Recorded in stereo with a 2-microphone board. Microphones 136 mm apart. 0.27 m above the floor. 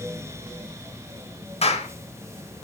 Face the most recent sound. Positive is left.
turn(degrees=50)  # may be behind; listen again after turning